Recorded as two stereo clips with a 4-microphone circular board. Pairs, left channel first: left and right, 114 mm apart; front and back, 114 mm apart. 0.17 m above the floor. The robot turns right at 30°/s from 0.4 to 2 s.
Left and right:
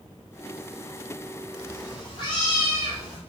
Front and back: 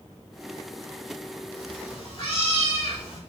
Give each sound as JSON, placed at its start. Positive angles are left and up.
{"t": 1.5, "sound": "a cat meowing", "azimuth_deg": 30, "distance_m": 4.0}